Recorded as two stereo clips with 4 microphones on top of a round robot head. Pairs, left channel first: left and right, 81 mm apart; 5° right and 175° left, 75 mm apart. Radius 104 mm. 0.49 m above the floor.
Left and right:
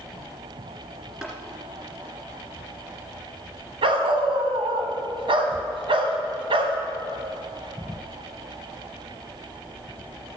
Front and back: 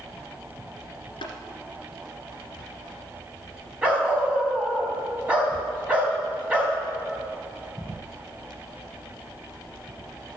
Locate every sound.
1.2 s tapping: 10° right, 1.8 m
3.8 s a dog barking: 105° right, 1.0 m